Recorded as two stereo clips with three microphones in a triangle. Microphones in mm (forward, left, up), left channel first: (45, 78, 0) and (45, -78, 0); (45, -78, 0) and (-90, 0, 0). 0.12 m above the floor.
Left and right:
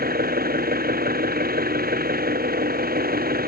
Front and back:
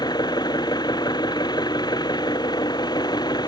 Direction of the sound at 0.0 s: 95° right.